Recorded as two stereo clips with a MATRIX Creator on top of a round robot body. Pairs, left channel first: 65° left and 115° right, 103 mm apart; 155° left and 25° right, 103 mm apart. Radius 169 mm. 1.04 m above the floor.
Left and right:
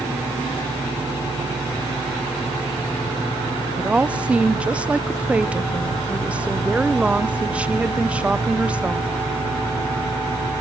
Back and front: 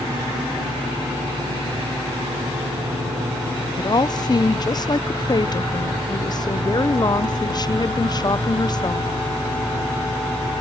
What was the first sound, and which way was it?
A woman speaking, 175° left.